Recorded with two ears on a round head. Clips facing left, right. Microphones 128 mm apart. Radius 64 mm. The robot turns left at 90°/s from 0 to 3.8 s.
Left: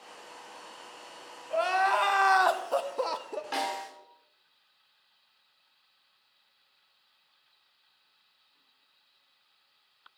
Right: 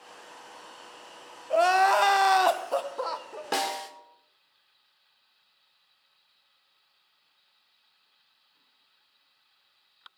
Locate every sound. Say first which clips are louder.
1.5 s crying: right 5 dB; 65° right, 0.6 m; by 3.4 s 120° left, 0.6 m
3.5 s a snare drum: right 4 dB; 55° right (ahead or behind), 1.3 m; by 3.9 s 35° right (ahead or behind), 1.3 m